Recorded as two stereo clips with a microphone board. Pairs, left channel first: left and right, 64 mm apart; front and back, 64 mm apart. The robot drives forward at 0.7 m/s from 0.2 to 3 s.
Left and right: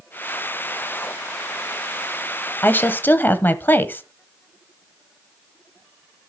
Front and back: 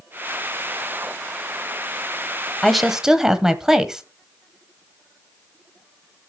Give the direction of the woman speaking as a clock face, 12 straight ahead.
9 o'clock.